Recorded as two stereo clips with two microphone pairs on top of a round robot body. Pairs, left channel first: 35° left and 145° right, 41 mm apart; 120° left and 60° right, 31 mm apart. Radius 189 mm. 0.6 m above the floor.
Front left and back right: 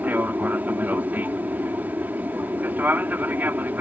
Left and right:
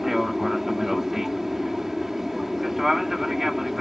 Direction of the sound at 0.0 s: 145° right.